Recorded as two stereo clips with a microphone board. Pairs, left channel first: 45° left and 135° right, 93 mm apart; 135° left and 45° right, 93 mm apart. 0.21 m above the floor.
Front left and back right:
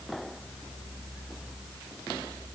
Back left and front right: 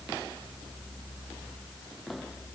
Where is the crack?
No crack in this recording.